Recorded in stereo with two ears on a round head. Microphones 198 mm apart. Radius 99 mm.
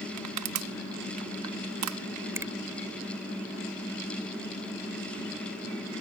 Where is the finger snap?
10° right (ahead or behind).